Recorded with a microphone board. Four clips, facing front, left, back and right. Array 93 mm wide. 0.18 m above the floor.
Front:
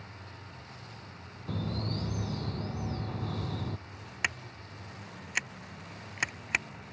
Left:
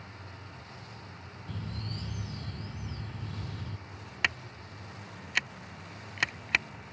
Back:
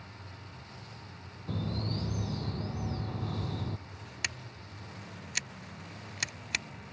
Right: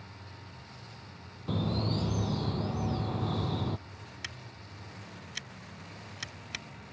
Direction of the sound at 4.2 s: 60° left.